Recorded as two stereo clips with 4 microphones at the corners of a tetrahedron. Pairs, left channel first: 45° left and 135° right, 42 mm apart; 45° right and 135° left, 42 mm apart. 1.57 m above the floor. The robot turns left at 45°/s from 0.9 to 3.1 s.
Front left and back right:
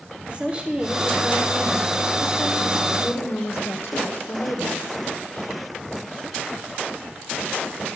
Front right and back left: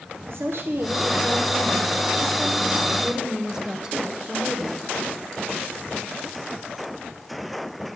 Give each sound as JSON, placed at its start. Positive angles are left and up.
{"t": 0.3, "sound": "a woman speaking", "azimuth_deg": 160, "distance_m": 1.2}